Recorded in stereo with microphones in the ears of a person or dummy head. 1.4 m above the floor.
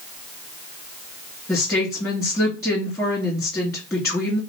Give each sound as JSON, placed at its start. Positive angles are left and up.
{"t": 1.5, "sound": "a woman speaking", "side_deg": 15, "distance_m": 2.5}